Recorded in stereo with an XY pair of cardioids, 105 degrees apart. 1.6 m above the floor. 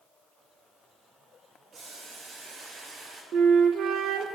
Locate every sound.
1.7 s boiling: 55° right, 2.5 m
3.3 s a flute: 70° right, 0.7 m